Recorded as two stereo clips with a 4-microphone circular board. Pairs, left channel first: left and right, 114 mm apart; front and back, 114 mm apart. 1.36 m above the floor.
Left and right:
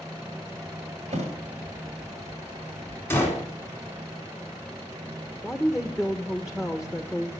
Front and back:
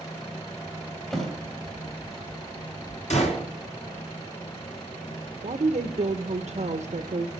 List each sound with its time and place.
1.1 s a thud: 90° right, 2.5 m
3.1 s a gunshot: 20° left, 3 m
5.4 s a woman speaking: 175° right, 0.8 m